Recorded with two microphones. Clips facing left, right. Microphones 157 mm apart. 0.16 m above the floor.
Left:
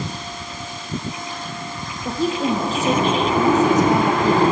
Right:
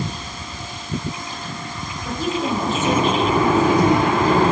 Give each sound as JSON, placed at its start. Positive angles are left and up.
{"t": 2.0, "sound": "a woman speaking", "side_deg": 35, "distance_m": 6.0}